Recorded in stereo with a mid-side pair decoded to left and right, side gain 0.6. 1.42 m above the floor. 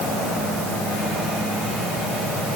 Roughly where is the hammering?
I don't hear hammering.